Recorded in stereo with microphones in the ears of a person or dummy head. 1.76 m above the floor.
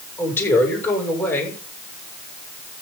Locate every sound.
0.2 s a man speaking: 10° left (ahead or behind), 7.5 m